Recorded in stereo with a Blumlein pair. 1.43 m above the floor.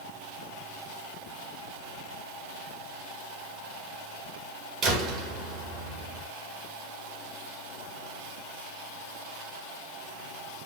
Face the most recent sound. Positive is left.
turn(degrees=-25)